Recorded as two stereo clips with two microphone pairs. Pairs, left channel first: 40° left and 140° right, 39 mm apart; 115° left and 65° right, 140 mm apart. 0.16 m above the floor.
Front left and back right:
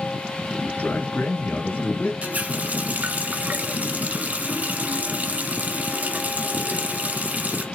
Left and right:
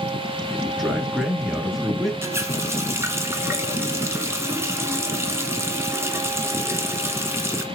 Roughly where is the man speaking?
Ahead left.